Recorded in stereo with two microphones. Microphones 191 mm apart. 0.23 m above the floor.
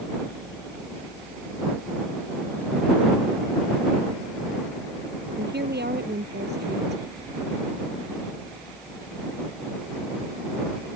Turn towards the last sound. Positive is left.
turn(degrees=-60)  # may be behind; listen again after turning